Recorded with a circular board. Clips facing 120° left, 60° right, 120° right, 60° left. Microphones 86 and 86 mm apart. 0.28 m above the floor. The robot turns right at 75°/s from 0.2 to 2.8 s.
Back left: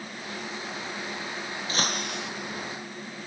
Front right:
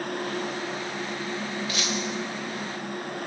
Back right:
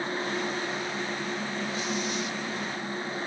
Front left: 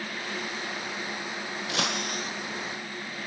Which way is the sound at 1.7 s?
65° left.